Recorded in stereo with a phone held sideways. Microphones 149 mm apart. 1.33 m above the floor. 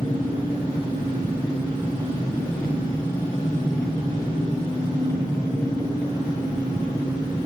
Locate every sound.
0.0 s an engine running: 25° left (ahead or behind), 5.5 m